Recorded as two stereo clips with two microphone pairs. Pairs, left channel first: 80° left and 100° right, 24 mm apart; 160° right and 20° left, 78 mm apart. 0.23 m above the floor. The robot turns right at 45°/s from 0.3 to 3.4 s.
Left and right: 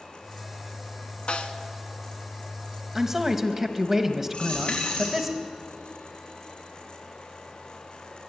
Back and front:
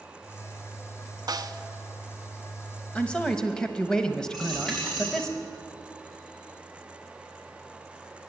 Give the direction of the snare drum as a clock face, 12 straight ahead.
11 o'clock.